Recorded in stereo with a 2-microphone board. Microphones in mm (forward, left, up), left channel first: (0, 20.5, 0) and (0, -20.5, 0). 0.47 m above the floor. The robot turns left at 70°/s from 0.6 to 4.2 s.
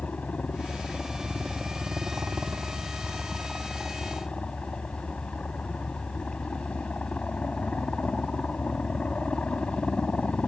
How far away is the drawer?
No drawer in this recording.